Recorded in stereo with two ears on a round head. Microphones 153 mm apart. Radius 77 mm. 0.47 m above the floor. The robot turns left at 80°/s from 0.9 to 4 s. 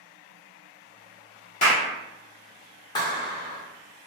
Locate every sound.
1.6 s a clap: 45° left (ahead or behind), 0.9 m
3.0 s a clap: 135° left, 0.7 m; by 3.6 s 85° left, 0.7 m